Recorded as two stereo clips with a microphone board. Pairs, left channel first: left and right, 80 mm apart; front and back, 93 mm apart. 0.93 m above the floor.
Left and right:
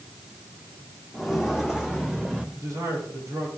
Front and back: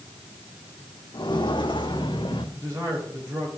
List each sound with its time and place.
1.1 s footsteps: straight ahead, 1.8 m; by 2.4 s 15° right, 3 m
2.5 s a man speaking: 130° right, 8.5 m